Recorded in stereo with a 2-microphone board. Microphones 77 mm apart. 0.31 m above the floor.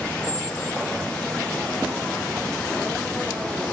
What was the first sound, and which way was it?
A squeak, 10° right (ahead or behind).